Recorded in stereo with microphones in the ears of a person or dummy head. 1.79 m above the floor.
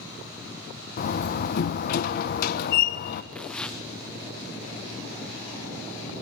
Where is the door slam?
55° left (ahead or behind), 1.2 m.